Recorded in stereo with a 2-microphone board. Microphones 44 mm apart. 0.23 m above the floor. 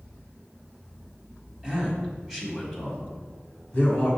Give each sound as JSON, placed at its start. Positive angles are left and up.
{"t": 1.6, "sound": "a man speaking", "side_deg": -20, "distance_m": 1.4}